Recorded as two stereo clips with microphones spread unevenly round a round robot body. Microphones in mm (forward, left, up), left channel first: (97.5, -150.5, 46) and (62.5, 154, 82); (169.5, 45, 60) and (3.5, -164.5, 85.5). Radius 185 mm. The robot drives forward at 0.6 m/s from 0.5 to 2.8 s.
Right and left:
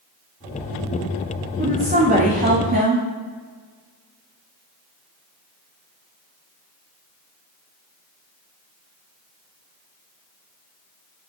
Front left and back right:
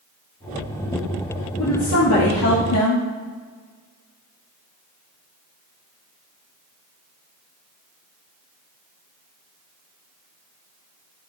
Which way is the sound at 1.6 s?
35° left.